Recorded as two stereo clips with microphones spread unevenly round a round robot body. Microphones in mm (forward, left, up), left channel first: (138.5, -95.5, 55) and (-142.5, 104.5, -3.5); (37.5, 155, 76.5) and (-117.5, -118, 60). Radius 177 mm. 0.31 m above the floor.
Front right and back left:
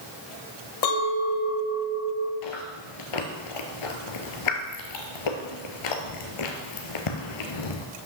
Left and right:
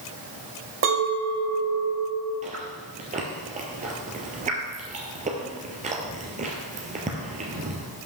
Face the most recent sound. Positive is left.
turn(degrees=-50)